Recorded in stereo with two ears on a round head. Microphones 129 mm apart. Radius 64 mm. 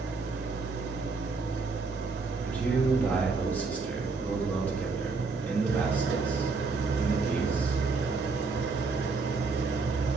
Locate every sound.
0.0 s an engine running: 85° right, 1.4 m
2.5 s a man speaking: 10° left (ahead or behind), 1.6 m